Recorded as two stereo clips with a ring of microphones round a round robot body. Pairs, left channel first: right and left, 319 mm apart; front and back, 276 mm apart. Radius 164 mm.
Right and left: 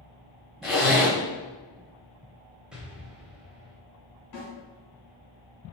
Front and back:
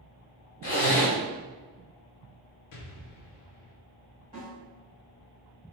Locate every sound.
0.6 s a zipper: straight ahead, 1.9 m
2.7 s an explosion: straight ahead, 0.5 m
4.3 s a snare drum: 75° right, 1.9 m